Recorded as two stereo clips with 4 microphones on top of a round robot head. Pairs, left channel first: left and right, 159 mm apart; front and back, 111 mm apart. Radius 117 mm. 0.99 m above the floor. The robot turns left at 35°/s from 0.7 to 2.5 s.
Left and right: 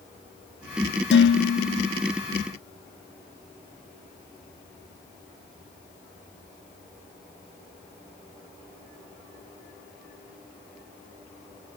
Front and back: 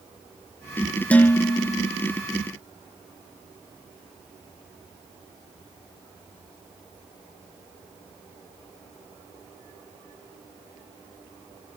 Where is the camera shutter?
I don't hear a camera shutter.